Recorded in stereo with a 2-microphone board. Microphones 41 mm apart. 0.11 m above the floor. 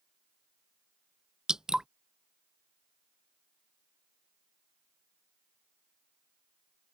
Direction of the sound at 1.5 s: 15° right (ahead or behind).